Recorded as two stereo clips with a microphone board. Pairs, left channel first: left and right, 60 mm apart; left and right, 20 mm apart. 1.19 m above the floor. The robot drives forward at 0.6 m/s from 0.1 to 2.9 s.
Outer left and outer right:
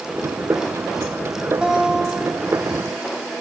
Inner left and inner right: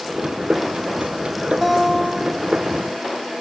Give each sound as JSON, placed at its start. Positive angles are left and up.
{"t": 1.6, "sound": "a guitar", "side_deg": -15, "distance_m": 1.6}